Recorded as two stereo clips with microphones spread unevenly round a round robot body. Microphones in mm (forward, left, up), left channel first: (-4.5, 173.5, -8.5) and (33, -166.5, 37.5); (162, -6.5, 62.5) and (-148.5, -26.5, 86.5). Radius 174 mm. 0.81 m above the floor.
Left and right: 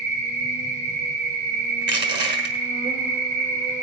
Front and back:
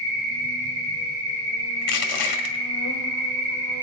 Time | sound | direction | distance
0.0 | an insect | 150° right | 4.5 m
1.8 | crushing | 20° right | 1.9 m